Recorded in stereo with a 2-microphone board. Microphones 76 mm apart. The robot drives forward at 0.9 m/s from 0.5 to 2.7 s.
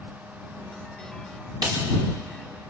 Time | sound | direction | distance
1.6 | a snare drum | 60° right (ahead or behind) | 6 m